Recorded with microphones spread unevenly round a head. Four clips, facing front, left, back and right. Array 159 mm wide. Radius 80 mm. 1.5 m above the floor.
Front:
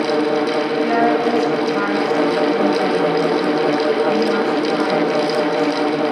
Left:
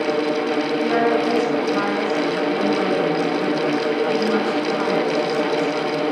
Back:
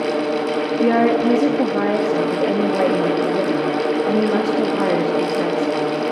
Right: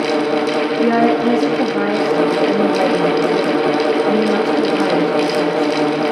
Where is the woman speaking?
145° right, 2 m.